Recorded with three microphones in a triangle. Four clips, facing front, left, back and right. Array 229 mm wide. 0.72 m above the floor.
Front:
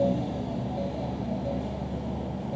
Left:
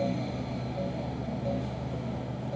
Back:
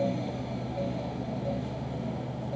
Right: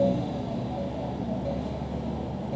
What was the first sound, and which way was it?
Only background noise.